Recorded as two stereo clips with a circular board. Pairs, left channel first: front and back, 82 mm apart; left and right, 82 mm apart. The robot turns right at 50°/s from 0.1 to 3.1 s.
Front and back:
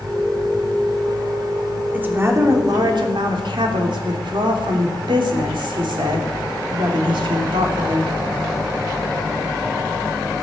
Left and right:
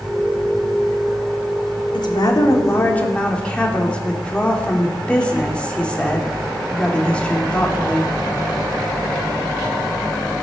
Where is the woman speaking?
110° left, 3 m; by 8.1 s 165° left, 3 m.